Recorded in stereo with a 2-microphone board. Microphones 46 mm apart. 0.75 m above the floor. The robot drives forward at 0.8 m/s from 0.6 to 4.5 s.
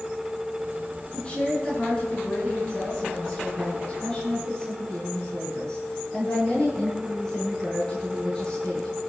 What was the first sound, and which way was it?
A woman speaking, 25° left (ahead or behind).